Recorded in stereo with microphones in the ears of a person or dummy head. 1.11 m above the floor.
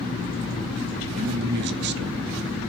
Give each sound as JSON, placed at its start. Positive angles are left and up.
{"t": 1.2, "sound": "a man speaking", "side_deg": -55, "distance_m": 1.0}